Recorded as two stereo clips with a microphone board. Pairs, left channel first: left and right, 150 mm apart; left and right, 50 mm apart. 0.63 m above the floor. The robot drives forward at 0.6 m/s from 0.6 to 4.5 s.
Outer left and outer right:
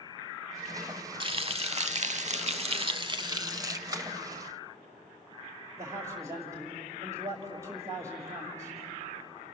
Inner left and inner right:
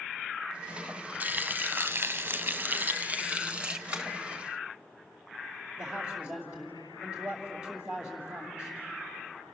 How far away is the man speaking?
About 2.5 m.